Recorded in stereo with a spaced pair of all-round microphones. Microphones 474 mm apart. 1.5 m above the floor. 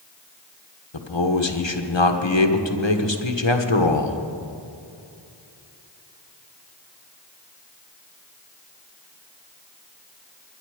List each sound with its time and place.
0.9 s a man speaking: 65° left (ahead or behind), 1.3 m